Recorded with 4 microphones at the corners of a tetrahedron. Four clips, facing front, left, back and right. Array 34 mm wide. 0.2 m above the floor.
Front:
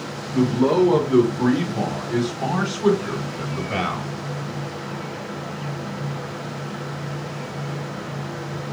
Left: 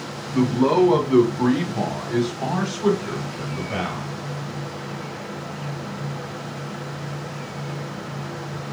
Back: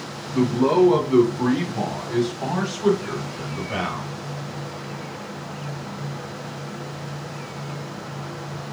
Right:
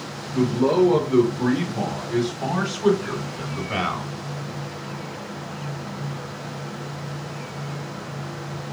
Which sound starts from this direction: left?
A man speaking, at 0.3 s.